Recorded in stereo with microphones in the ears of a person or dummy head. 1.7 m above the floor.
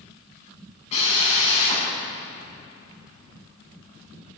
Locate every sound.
0.9 s a drill: 35° left (ahead or behind), 9 m